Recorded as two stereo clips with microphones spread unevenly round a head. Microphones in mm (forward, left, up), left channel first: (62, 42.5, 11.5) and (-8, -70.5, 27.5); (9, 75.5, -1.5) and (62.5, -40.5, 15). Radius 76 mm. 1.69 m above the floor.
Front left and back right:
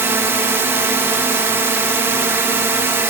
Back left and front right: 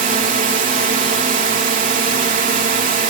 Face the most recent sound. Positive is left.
turn(degrees=-50)